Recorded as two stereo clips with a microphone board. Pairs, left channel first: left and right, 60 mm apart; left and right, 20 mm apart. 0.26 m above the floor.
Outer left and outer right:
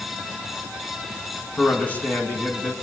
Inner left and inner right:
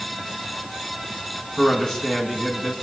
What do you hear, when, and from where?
1.6 s a man speaking: 25° left (ahead or behind), 3 m